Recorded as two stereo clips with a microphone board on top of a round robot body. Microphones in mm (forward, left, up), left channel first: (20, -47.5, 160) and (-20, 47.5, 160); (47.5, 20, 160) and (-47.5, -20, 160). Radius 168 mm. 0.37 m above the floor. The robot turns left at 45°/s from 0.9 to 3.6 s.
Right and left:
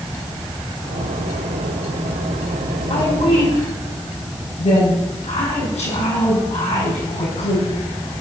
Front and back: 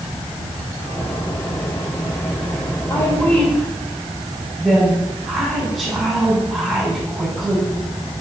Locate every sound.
2.9 s a woman speaking: 30° right, 4.5 m; by 7.6 s 65° right, 4.5 m